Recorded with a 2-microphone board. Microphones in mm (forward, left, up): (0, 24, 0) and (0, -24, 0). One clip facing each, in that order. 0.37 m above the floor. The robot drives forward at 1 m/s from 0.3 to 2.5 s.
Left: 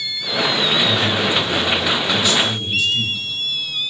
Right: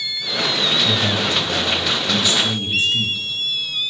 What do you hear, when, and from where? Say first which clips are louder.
0.8 s a man speaking: left 2 dB; 55° right (ahead or behind), 2 m; by 3.2 s 35° right (ahead or behind), 2.5 m